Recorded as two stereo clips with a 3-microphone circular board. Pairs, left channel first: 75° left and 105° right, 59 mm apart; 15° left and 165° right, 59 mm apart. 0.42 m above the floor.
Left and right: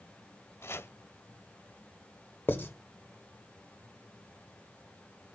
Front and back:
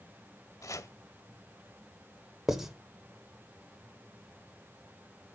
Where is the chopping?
35° left, 0.8 m.